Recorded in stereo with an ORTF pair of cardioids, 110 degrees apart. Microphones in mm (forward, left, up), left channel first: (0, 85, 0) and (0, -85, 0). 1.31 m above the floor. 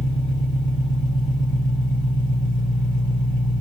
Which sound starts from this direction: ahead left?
An engine running, at 0.0 s.